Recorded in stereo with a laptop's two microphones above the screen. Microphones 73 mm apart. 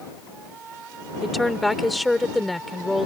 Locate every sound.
1.2 s a woman speaking: centre (ahead or behind)